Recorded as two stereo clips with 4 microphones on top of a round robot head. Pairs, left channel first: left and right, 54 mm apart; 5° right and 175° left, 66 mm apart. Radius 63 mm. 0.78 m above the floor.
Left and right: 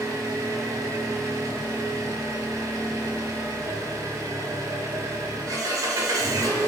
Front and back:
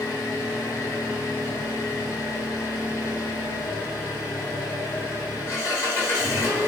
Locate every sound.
0.0 s an engine running: 60° right, 1.1 m